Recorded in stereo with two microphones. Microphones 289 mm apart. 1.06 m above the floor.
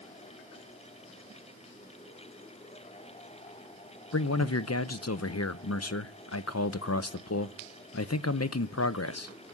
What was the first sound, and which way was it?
A man speaking, 60° left (ahead or behind).